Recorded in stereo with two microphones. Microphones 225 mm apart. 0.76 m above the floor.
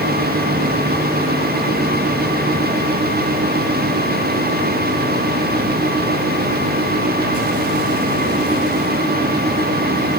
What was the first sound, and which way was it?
Only background noise.